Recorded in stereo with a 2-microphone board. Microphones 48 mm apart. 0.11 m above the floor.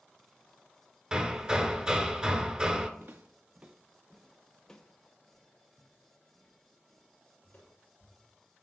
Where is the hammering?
20° right (ahead or behind), 0.5 m.